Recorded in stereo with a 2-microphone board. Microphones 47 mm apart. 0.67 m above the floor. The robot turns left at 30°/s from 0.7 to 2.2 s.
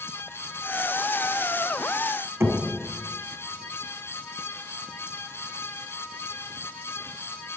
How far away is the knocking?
About 4.5 m.